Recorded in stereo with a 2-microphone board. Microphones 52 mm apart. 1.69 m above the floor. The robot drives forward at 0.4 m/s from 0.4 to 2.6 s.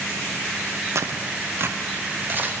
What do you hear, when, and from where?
0.9 s tearing paper: 60° right (ahead or behind), 0.6 m; by 2.5 s 35° right (ahead or behind), 0.9 m